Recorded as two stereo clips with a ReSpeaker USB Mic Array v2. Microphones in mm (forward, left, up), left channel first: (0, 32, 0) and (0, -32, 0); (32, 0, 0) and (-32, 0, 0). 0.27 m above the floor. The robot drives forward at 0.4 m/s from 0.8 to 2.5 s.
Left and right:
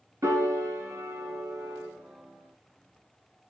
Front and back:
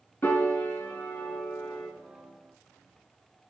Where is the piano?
55° right, 1.1 m; by 1.9 s 80° right, 1.0 m.